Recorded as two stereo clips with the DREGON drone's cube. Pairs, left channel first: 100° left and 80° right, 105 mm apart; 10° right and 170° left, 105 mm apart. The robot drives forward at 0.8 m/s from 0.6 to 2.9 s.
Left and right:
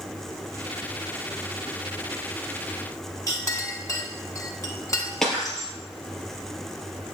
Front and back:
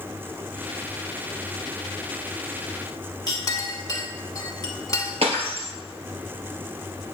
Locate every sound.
3.3 s a clink: 40° left, 1.2 m
5.2 s breaking glass: 175° right, 2.5 m